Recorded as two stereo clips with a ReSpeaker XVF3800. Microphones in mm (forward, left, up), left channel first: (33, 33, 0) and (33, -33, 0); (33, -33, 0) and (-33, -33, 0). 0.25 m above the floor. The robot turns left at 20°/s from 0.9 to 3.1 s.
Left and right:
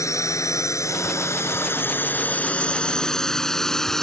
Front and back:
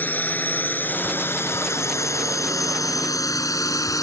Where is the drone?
60° left; by 4.0 s 10° left.